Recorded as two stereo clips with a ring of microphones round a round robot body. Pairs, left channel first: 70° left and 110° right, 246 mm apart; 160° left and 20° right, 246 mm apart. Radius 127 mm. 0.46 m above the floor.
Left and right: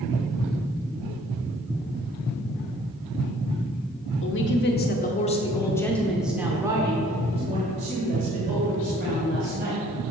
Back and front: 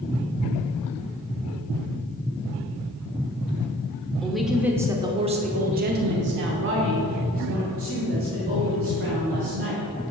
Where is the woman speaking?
70° left, 1.1 m; by 10.1 s 60° right, 3 m.